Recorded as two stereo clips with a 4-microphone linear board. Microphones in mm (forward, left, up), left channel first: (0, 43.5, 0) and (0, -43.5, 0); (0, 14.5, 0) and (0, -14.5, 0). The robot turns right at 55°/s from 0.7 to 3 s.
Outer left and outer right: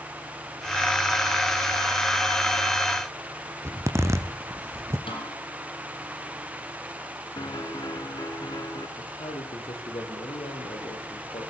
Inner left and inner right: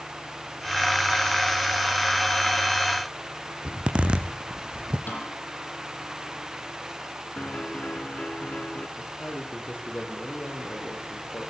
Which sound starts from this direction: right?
A zipper, at 3.6 s.